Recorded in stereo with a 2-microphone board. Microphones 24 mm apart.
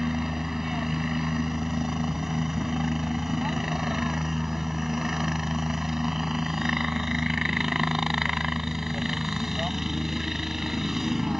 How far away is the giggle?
No giggle in this recording.